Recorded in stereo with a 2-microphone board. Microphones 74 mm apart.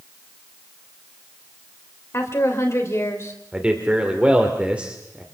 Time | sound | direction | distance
2.1 | a woman speaking | 40° left (ahead or behind) | 3.5 m
3.5 | a man speaking | 15° right (ahead or behind) | 2.5 m